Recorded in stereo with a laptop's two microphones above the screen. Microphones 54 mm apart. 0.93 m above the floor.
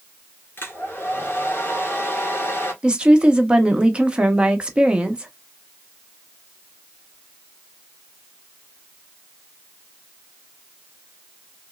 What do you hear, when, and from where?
0.6 s a hair dryer: 45° left (ahead or behind), 1.8 m
2.8 s a woman speaking: 20° right (ahead or behind), 1.1 m